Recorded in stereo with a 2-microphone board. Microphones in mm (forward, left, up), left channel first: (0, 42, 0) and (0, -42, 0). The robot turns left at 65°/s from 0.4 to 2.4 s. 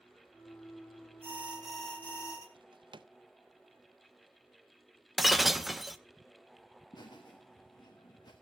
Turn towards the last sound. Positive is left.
turn(degrees=60)  # may be behind; listen again after turning